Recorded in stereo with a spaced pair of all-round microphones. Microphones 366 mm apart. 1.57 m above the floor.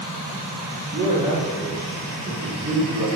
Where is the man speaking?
10° right (ahead or behind), 5 m.